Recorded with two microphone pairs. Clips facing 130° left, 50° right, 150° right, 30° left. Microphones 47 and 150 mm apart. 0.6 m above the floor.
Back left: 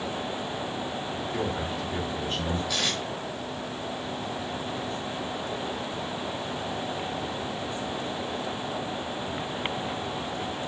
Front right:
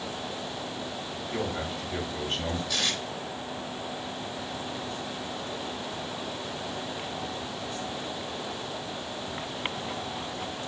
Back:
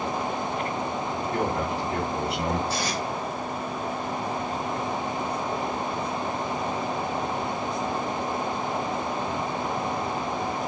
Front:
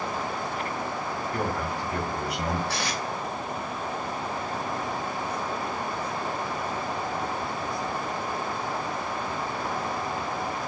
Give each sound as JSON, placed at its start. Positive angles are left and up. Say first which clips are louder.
{"t": 1.3, "sound": "a man speaking", "louder": "even, back 3 dB", "azimuth_deg": -90, "distance_m": 2.0}
{"t": 2.7, "sound": "tape being pulled", "louder": "back left 1 dB, back 2 dB", "azimuth_deg": 45, "distance_m": 1.7}